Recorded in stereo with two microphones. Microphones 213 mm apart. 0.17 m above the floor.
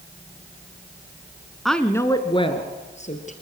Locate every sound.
1.6 s a woman speaking: centre (ahead or behind), 1.6 m; by 3.3 s 35° left (ahead or behind), 3.5 m